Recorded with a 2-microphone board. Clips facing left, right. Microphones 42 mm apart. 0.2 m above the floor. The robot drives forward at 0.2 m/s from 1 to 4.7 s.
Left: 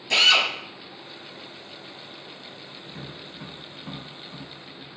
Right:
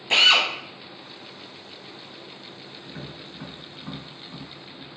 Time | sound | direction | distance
0.1 | a drill | 30° right (ahead or behind) | 0.6 m
2.8 | tapping | 15° right (ahead or behind) | 1.1 m